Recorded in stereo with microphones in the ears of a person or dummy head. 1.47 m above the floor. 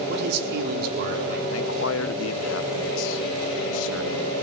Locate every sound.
0.1 s a man speaking: 65° right (ahead or behind), 4.5 m; by 1.4 s 55° right (ahead or behind), 4.5 m
1.5 s a man speaking: 80° left, 1.1 m